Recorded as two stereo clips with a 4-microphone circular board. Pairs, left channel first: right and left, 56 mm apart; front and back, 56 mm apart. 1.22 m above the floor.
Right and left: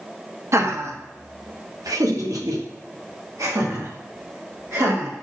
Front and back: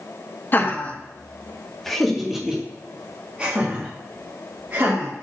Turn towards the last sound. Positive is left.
turn(degrees=125)